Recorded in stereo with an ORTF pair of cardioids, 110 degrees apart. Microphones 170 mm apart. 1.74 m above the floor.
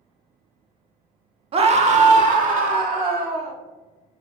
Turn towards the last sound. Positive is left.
turn(degrees=-55)